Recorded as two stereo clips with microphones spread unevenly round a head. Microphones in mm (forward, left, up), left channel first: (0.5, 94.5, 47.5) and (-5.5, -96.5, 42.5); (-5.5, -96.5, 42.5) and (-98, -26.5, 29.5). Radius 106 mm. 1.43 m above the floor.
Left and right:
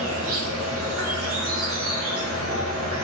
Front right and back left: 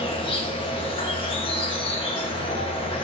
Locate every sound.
0.0 s an insect: 75° right, 1.3 m